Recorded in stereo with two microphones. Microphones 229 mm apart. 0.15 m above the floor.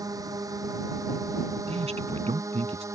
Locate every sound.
0.0 s a drone: 15° right (ahead or behind)
1.7 s a man speaking: 25° right (ahead or behind)